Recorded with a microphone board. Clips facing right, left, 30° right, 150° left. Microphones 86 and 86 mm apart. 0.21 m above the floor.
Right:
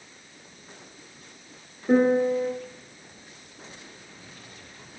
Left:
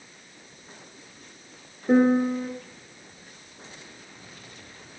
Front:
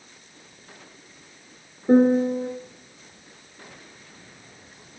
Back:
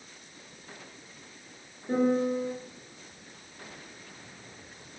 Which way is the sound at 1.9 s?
5° left.